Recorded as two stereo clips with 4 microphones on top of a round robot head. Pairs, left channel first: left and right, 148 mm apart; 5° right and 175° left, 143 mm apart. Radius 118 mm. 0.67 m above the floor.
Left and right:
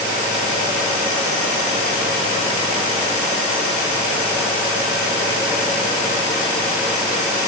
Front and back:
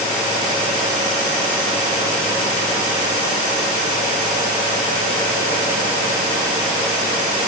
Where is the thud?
No thud in this recording.